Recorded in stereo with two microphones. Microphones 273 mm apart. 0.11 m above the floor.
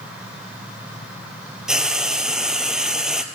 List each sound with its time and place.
1.7 s frying: 5° right (ahead or behind), 1.0 m